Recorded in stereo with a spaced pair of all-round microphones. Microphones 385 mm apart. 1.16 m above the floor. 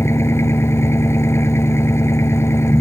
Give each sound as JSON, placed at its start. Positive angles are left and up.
{"t": 0.0, "sound": "an engine running", "side_deg": 5}